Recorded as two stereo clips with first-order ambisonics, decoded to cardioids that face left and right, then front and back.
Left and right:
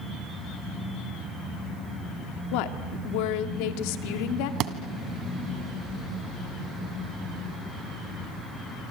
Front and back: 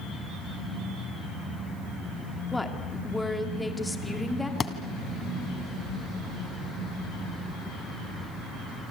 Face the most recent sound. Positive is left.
turn(degrees=-70)